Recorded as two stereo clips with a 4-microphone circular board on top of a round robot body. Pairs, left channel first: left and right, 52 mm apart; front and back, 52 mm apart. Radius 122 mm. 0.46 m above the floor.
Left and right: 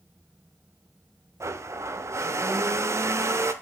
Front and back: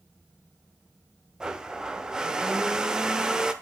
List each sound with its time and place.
1.4 s a blender: 105° right, 1.1 m